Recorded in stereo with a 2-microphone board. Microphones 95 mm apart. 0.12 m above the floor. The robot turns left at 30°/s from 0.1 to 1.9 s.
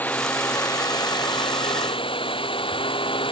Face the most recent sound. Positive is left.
turn(degrees=105)